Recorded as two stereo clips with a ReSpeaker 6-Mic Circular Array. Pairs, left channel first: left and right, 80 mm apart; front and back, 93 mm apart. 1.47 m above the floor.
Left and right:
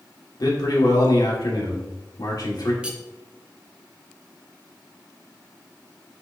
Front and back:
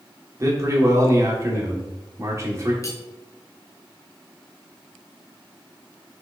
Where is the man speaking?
125° left, 1.1 m.